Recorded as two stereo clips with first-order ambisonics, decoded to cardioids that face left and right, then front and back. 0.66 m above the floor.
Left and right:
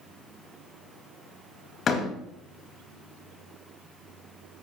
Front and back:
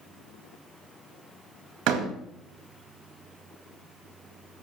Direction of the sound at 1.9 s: 150° left.